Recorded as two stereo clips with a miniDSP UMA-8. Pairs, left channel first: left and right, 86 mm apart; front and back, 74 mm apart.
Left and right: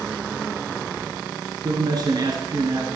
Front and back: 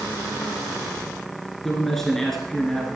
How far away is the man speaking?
About 1.9 m.